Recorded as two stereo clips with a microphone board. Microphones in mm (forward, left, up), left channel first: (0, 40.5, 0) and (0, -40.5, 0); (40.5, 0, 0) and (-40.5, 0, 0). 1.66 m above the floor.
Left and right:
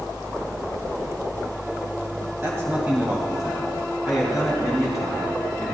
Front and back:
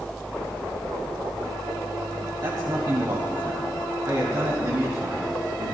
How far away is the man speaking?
About 1.8 m.